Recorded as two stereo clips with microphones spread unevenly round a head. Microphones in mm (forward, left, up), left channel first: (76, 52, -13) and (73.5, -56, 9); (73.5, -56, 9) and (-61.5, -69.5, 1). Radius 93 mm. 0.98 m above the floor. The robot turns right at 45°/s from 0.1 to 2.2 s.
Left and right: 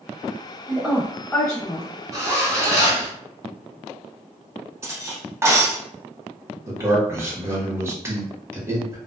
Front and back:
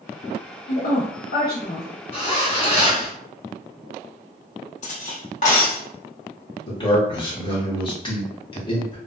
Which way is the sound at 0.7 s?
10° right.